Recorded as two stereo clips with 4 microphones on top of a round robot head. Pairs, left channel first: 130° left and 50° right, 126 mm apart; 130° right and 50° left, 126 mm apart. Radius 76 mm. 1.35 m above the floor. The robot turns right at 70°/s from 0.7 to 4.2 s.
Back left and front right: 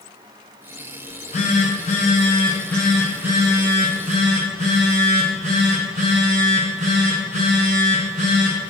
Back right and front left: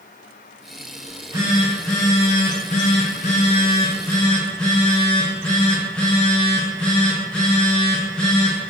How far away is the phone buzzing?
About 0.7 m.